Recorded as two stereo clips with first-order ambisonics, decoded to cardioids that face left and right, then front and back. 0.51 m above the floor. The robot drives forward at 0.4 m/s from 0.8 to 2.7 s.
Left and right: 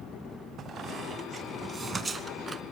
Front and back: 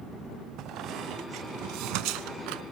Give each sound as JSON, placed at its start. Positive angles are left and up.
{"t": 0.6, "sound": "a squeak", "azimuth_deg": -145, "distance_m": 0.5}